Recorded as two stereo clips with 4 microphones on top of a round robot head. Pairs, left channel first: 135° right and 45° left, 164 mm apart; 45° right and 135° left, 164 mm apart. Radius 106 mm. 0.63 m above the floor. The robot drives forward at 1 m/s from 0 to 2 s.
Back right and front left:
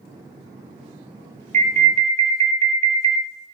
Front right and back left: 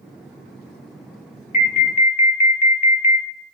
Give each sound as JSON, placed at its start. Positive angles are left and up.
{"t": 1.5, "sound": "an alarm", "azimuth_deg": 0, "distance_m": 1.3}